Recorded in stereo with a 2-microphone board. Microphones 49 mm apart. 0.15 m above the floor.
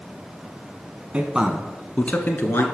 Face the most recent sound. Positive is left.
turn(degrees=45)  # may be behind; listen again after turning